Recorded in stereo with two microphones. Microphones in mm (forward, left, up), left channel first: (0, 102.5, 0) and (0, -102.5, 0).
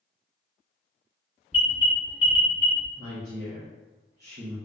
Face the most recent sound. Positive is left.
turn(degrees=-45)  # may be behind; listen again after turning